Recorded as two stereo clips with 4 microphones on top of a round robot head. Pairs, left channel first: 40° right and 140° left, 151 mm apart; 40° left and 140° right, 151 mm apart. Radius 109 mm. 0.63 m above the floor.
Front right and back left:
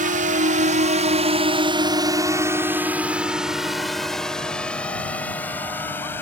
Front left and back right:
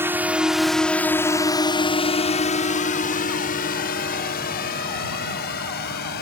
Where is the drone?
145° left; by 6.2 s 40° left.